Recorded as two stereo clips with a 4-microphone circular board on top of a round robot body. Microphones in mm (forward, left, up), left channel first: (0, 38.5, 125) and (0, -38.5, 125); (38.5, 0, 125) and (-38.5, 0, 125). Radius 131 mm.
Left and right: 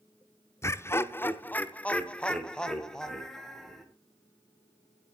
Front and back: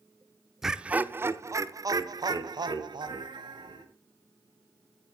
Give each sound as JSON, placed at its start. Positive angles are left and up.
{"t": 0.6, "sound": "laughter", "azimuth_deg": 100, "distance_m": 1.0}